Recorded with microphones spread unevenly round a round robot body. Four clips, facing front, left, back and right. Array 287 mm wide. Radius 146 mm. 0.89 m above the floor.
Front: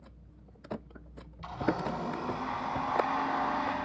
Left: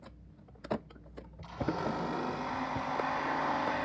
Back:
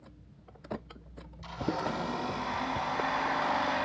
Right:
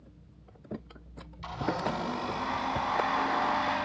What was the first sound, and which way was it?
A blender, 75° right.